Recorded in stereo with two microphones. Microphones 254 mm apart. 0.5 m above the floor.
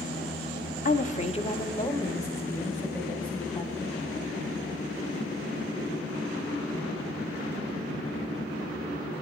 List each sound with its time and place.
0.8 s a woman speaking: 35° left (ahead or behind), 0.8 m; by 4.0 s 5° left (ahead or behind), 3 m